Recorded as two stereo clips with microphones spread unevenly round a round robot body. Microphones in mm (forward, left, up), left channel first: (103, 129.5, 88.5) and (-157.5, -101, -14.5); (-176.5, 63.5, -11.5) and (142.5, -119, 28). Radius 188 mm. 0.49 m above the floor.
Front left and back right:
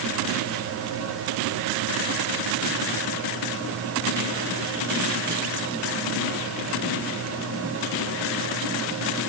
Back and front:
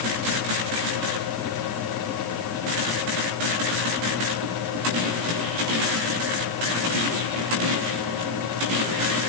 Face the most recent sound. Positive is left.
No sound to turn to.